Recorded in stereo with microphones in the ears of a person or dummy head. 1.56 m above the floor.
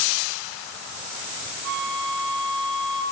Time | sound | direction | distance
1.6 | a flute | 55° right (ahead or behind) | 9.5 m